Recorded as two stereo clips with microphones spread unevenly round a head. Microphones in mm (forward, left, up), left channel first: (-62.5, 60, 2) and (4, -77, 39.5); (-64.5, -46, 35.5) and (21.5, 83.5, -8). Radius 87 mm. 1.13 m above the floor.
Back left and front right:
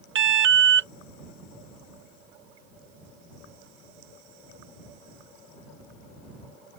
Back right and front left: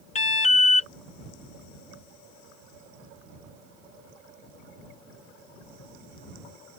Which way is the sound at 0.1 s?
65° right.